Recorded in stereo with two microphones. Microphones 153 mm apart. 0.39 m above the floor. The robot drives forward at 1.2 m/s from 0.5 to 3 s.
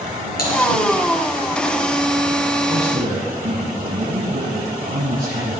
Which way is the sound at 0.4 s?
70° left (ahead or behind).